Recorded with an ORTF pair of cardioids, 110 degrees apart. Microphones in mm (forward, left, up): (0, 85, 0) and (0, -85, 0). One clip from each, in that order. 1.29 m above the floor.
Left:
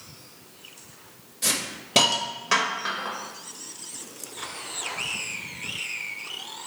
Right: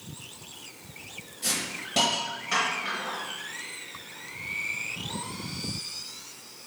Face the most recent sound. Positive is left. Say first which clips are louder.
# left 3 dB
turn(degrees=60)